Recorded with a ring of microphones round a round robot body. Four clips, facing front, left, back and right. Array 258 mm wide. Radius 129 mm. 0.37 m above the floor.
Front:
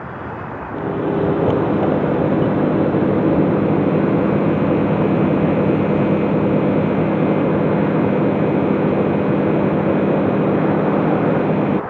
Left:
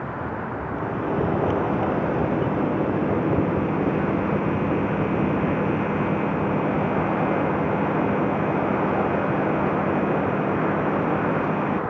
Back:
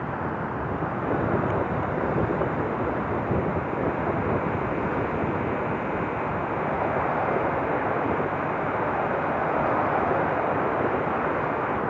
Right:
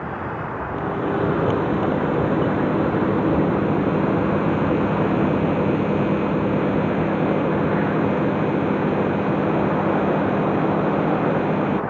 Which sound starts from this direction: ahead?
A microwave, at 0.8 s.